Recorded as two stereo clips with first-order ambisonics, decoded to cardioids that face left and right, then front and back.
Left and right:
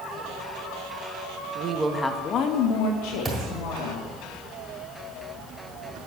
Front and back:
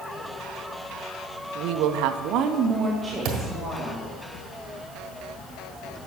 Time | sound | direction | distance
1.6 | a woman speaking | 150° right | 0.9 m
3.2 | a thud | 170° right | 1.6 m